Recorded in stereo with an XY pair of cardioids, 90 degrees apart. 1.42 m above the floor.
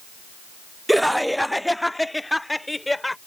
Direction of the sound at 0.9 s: 5° right.